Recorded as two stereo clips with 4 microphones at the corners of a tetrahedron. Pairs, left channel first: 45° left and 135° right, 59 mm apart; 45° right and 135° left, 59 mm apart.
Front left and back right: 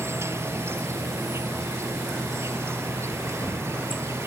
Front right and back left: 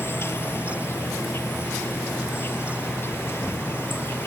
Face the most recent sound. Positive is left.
turn(degrees=-95)